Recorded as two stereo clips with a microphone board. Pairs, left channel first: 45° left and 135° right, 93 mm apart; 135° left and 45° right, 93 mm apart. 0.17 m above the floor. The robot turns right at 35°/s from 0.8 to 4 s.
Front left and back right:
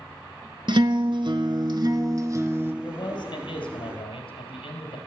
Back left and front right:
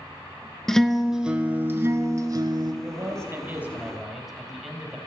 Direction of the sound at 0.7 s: 140° right.